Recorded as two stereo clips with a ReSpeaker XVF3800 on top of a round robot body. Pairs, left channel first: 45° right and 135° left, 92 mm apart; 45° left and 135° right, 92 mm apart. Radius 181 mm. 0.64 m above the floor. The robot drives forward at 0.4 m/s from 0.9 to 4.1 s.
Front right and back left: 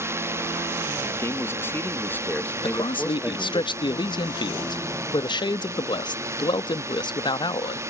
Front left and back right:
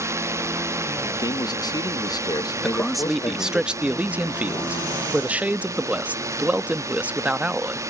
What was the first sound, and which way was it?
A drone, straight behind.